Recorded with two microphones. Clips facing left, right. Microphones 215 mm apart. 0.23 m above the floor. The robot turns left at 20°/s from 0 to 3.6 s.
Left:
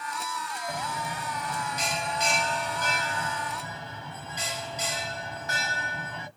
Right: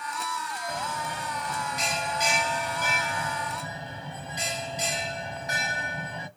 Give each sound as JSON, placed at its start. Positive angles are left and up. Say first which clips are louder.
{"t": 0.7, "sound": "a bell", "louder": "even", "azimuth_deg": 30, "distance_m": 1.2}